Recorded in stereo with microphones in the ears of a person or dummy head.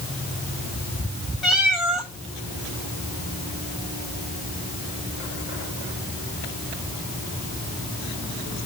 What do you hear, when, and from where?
1.4 s a cat meowing: 5° left (ahead or behind), 1.5 m